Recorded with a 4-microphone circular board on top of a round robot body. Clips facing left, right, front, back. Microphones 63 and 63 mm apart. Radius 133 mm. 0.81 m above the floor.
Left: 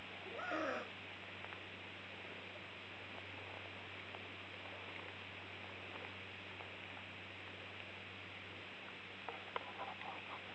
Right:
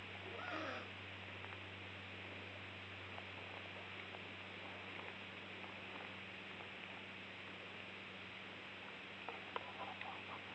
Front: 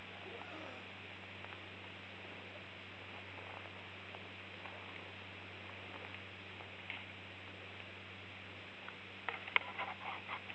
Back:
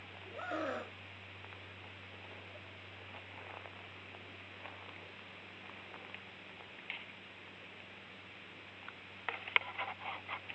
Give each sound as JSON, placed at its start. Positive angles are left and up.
{"t": 0.4, "sound": "a scream", "azimuth_deg": 160}